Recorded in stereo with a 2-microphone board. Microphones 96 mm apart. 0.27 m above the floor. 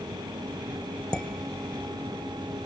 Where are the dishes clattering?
10° left (ahead or behind), 0.7 m.